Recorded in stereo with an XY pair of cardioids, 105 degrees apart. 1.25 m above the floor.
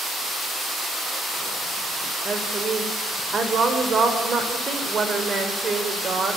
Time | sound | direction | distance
2.2 | a woman speaking | 40° right | 5 m